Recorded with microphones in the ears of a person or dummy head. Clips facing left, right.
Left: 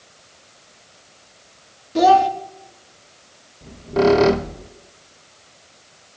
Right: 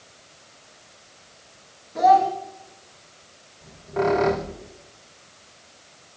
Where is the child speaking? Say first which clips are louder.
Left 3 dB; 45° left (ahead or behind), 1.2 m.